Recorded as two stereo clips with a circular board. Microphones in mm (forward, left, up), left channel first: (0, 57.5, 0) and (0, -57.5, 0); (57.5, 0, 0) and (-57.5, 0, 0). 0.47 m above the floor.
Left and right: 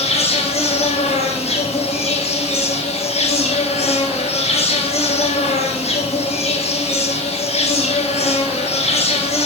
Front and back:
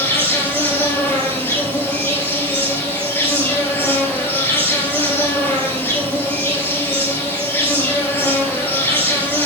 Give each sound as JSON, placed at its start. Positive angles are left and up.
{"t": 0.0, "sound": "an insect", "azimuth_deg": 70, "distance_m": 1.7}